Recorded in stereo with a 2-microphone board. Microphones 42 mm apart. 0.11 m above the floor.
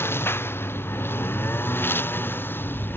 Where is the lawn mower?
75° left (ahead or behind); by 3.0 s 60° left (ahead or behind).